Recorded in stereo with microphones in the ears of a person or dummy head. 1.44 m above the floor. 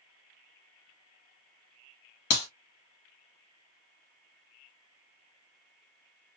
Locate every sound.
2.3 s a clap: 65° left (ahead or behind), 1.2 m